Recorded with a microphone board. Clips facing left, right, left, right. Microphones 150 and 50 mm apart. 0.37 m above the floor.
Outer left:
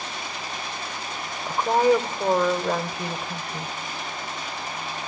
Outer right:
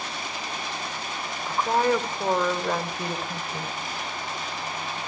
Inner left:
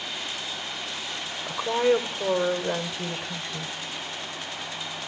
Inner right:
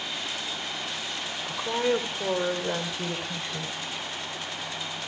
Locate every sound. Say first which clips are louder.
1.5 s a woman speaking: outer left 4 dB, inner left 4 dB; 15° left (ahead or behind), 1.5 m; by 3.7 s 5° right (ahead or behind), 2 m